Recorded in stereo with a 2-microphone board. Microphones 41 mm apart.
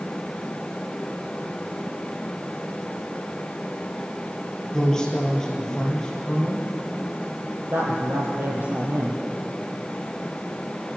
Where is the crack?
I don't hear a crack.